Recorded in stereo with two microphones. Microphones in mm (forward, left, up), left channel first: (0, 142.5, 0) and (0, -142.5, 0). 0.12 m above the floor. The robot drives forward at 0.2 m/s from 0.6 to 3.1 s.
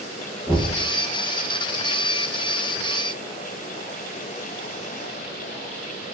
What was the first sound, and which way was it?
Knocking, 15° right (ahead or behind).